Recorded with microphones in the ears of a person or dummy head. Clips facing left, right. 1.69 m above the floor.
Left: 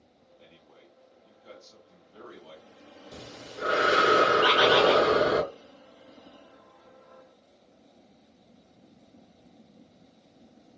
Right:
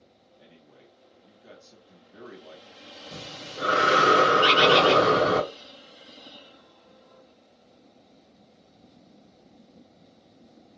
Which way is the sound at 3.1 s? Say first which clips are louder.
Right 2 dB; 60° right (ahead or behind).